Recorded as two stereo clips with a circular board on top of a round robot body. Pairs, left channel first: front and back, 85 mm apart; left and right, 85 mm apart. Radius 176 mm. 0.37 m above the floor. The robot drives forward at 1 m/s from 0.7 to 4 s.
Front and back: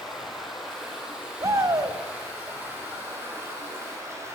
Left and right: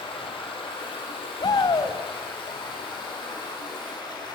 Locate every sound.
0.0 s running water: 95° left, 6 m; by 4.3 s 120° left, 7 m
1.4 s a shout: 125° left, 3.5 m; by 2.0 s 135° left, 3.5 m